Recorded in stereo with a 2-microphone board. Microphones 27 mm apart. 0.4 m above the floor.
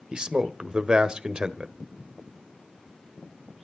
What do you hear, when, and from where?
0.1 s a man speaking: 40° right (ahead or behind), 1.2 m